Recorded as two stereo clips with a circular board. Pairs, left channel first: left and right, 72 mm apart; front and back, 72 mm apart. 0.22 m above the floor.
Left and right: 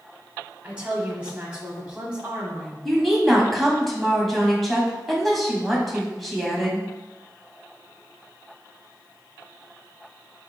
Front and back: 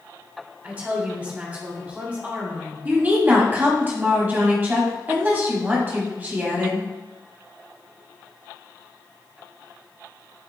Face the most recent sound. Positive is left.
turn(degrees=175)